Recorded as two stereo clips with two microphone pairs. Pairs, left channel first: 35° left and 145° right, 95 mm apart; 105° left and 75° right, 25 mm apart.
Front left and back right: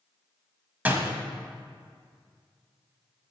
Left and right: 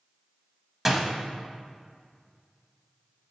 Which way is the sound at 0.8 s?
135° right.